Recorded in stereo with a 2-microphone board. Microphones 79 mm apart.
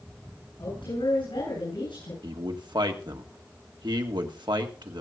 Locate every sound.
0.6 s a woman speaking: 80° left, 9.5 m
2.2 s a man speaking: 70° right (ahead or behind), 1.8 m